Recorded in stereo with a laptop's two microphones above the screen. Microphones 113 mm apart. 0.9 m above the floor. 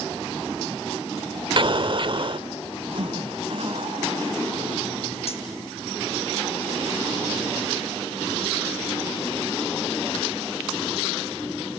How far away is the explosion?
About 1.1 m.